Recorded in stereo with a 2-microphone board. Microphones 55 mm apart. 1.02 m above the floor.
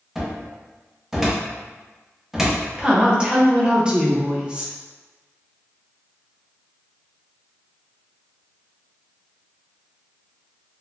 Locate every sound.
0.1 s a cupboard door: 5° right (ahead or behind), 0.6 m
2.8 s a woman speaking: 20° right (ahead or behind), 0.6 m